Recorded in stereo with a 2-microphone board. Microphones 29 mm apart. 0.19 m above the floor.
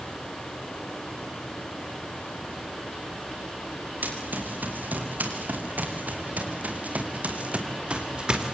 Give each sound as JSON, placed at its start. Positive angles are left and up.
{"t": 4.0, "sound": "running footsteps", "side_deg": -85, "distance_m": 6.5}